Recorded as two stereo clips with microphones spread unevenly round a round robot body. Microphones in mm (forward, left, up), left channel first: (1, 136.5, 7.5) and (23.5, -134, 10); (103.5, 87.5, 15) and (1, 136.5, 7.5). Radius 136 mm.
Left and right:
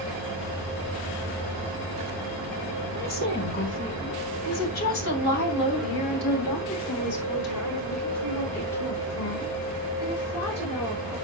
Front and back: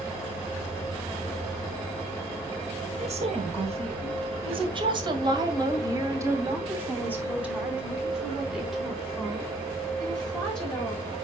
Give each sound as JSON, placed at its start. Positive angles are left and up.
{"t": 2.9, "sound": "a woman speaking", "azimuth_deg": 150, "distance_m": 2.5}